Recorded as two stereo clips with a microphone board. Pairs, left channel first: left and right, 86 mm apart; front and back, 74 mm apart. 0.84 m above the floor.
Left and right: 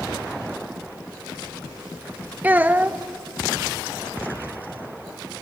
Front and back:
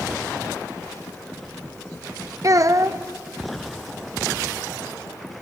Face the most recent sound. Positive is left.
turn(degrees=-155)